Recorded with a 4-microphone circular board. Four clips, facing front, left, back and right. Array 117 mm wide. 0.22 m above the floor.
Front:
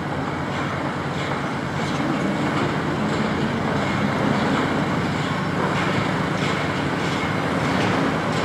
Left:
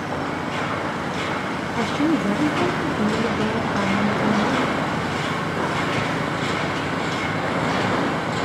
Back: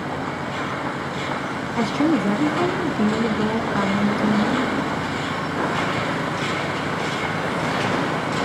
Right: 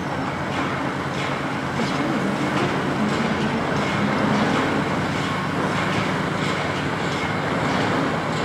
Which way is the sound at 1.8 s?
160° left.